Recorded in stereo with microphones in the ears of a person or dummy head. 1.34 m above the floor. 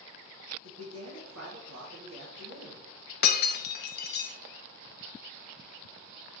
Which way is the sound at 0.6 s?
80° right.